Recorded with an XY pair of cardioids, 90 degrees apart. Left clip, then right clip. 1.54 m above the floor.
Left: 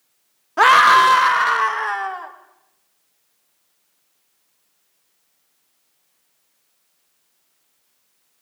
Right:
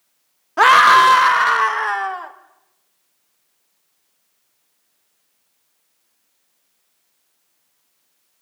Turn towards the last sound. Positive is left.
turn(degrees=-25)